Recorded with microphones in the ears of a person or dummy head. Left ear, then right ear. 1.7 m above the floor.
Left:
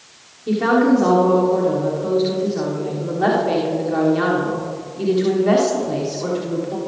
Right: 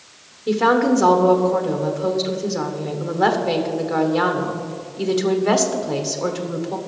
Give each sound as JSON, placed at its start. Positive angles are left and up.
{"t": 0.5, "sound": "a woman speaking", "side_deg": -35, "distance_m": 1.3}